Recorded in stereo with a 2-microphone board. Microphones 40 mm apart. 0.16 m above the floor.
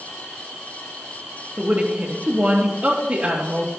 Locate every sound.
1.6 s a woman speaking: 35° right (ahead or behind), 3.5 m